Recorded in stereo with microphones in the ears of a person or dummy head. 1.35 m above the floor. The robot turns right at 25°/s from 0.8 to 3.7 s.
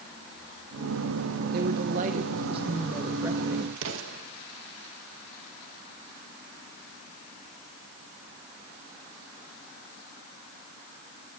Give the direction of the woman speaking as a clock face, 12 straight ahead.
2 o'clock.